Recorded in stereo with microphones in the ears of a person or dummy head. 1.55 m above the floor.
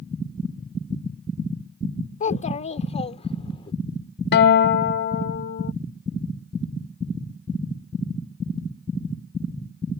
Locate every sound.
2.2 s a child speaking: 40° left (ahead or behind); by 3.7 s 30° left (ahead or behind)
4.3 s a guitar: 55° left (ahead or behind)